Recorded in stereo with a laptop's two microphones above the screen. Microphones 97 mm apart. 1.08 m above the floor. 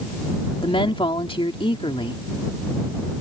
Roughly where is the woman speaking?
Left.